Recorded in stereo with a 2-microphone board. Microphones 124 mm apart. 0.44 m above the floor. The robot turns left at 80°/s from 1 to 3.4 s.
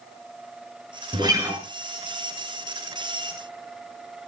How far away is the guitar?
About 3.5 m.